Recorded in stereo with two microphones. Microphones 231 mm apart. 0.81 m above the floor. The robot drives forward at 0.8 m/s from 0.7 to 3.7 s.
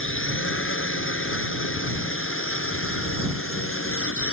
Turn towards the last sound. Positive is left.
turn(degrees=70)  # may be behind; listen again after turning